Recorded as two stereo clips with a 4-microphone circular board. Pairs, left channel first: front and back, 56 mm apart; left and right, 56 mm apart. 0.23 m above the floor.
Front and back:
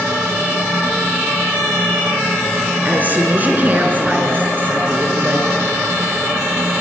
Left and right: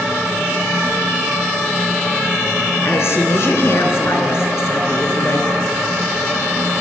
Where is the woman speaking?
125° left, 3.5 m.